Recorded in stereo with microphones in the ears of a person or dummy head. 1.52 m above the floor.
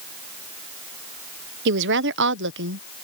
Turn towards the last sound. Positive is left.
turn(degrees=-65)  # may be behind; listen again after turning